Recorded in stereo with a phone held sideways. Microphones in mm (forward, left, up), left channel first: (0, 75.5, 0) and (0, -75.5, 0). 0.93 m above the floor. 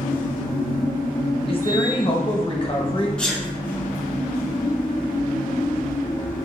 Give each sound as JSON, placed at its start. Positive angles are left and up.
{"t": 0.0, "sound": "a machine running", "side_deg": 65, "distance_m": 0.9}
{"t": 1.5, "sound": "a woman speaking", "side_deg": 35, "distance_m": 0.7}
{"t": 3.2, "sound": "a sneeze", "side_deg": 5, "distance_m": 0.6}